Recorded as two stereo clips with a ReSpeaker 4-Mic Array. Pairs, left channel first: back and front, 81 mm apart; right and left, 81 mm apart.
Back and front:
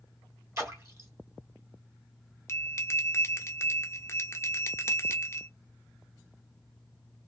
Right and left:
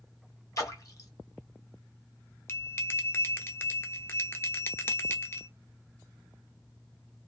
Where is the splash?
50° right, 1.1 m.